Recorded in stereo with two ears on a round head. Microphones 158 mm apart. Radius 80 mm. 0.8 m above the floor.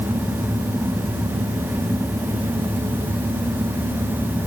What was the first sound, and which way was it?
Only background noise.